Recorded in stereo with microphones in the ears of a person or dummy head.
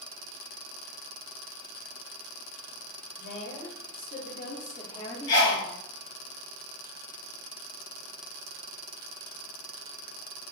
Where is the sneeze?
55° left (ahead or behind), 1.9 m.